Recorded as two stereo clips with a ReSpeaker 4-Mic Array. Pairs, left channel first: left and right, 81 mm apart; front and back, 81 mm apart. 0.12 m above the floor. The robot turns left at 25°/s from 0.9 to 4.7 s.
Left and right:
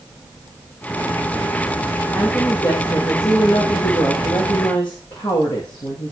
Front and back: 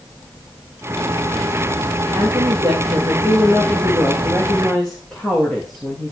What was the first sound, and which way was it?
A woman speaking, 145° left.